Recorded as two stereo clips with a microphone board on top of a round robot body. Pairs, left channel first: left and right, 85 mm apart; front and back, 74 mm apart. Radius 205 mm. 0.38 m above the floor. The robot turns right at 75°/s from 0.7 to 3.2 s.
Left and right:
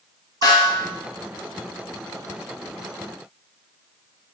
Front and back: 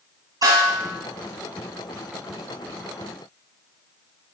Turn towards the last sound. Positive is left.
turn(degrees=-40)